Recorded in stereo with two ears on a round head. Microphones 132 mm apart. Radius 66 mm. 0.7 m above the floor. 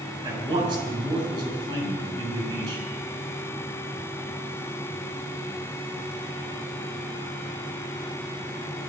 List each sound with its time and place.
0.2 s a man speaking: 35° right (ahead or behind), 6.5 m